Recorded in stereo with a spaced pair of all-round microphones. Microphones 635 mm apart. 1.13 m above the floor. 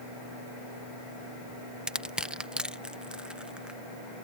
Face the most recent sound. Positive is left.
turn(degrees=0)  # may be behind; listen again after turning